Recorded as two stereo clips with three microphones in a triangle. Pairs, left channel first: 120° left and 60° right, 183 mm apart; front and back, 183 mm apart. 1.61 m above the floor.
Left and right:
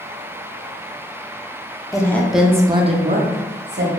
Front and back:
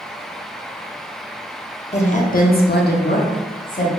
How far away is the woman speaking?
About 0.8 m.